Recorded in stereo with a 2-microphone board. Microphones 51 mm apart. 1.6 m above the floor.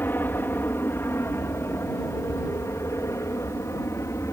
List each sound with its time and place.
0.0 s an aircraft: 45° left (ahead or behind); by 4.3 s 70° left (ahead or behind)